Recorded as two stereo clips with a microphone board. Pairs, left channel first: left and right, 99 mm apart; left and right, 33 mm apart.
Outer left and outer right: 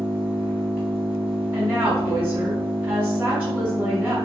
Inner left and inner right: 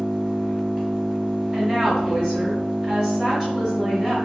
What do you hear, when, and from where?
0.0 s an engine running: 15° right (ahead or behind), 1.4 m
1.5 s a woman speaking: 15° right (ahead or behind), 1.8 m